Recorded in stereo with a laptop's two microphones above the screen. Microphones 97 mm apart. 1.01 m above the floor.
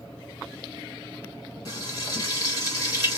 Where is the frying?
40° left (ahead or behind), 1.4 m.